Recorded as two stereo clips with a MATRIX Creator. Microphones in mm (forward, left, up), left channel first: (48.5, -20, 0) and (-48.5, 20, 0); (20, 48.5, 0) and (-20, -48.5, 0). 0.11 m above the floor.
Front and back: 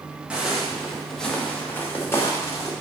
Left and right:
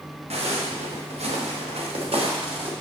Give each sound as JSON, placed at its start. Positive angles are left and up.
{"t": 0.3, "sound": "footsteps", "azimuth_deg": -120, "distance_m": 1.9}